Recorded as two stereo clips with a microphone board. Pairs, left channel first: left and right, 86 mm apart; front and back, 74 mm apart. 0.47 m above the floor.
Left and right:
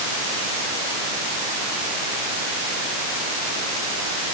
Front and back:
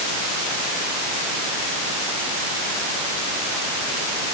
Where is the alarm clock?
I don't hear an alarm clock.